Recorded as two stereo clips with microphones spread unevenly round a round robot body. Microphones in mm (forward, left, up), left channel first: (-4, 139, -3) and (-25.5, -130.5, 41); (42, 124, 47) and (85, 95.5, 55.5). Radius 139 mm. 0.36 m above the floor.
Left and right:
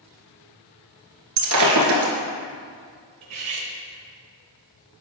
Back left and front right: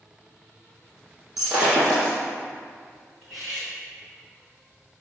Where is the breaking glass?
120° right, 1.3 m.